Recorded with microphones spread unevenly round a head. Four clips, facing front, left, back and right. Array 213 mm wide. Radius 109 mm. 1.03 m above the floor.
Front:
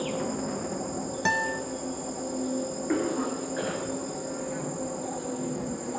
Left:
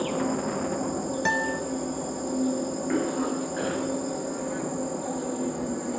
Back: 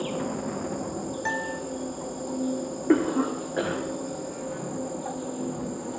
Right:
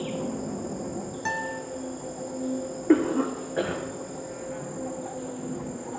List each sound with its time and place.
0.0 s an insect: 95° left, 2.5 m
1.2 s a guitar: 35° left, 1.3 m
2.9 s a cough: 125° right, 3 m